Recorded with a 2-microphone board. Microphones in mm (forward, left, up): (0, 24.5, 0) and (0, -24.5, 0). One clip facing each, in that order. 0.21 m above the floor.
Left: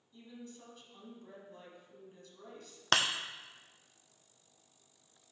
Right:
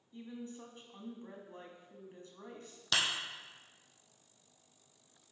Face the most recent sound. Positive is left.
turn(degrees=50)  # may be behind; listen again after turning